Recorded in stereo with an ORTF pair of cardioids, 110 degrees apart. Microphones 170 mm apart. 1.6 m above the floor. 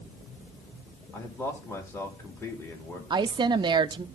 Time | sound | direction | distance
1.1 | a man speaking | 15° left | 2.5 m
3.1 | a woman speaking | 25° right | 0.6 m